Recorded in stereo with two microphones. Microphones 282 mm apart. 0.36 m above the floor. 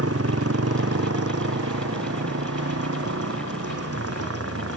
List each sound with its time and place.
0.0 s a motorcycle: 55° right (ahead or behind)